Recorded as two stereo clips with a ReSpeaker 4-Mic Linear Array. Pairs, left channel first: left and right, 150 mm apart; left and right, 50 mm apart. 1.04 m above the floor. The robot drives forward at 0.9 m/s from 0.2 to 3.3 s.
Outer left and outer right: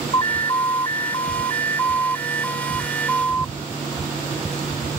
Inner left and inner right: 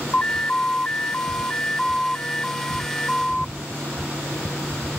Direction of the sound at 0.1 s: 30° left (ahead or behind).